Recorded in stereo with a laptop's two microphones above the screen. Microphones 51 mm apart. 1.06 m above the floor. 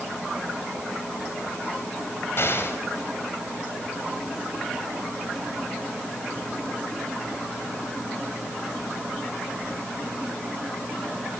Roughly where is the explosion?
Left.